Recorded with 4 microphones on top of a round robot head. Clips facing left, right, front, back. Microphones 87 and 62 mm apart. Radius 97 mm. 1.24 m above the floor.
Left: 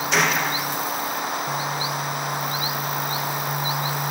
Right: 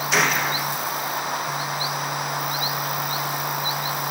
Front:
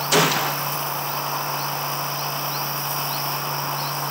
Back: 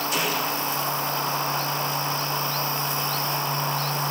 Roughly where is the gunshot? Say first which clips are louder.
Even, front 10 dB; ahead.